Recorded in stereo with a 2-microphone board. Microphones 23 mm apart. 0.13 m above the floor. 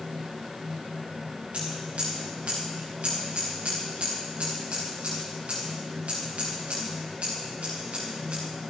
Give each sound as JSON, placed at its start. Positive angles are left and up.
{"t": 1.5, "sound": "scissors", "side_deg": -80, "distance_m": 5.5}